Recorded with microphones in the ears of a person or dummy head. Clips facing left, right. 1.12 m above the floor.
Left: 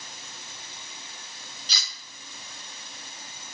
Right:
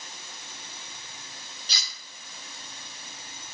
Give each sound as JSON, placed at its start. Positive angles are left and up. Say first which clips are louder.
{"t": 1.7, "sound": "cutlery clinking", "louder": "even", "side_deg": 75, "distance_m": 1.7}